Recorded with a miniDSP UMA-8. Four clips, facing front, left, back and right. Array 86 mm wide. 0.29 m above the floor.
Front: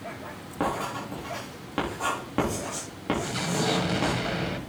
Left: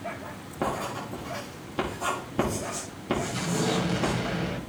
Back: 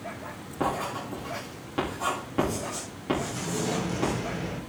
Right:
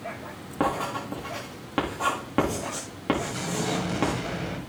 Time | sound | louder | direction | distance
0.6 | writing | right 3 dB, even | 75° right | 7 m
3.2 | an explosion | left 1 dB, front 3 dB | 5° left | 1.7 m